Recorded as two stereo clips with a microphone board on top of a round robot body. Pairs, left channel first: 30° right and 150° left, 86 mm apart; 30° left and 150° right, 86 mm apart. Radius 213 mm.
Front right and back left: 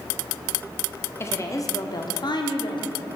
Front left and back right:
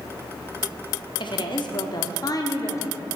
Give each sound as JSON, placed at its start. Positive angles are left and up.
{"t": 1.2, "sound": "a woman speaking", "azimuth_deg": 25, "distance_m": 1.3}